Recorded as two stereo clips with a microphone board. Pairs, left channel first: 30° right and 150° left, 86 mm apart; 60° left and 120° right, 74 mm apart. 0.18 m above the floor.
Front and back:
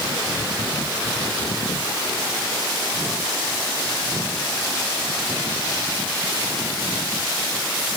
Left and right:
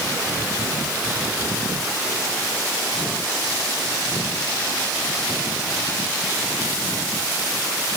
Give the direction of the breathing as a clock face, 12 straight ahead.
I don't hear breathing.